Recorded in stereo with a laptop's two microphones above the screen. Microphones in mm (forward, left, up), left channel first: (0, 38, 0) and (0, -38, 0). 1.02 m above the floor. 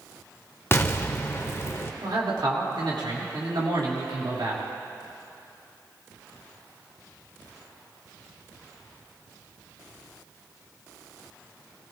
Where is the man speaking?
75° right (ahead or behind), 2 m.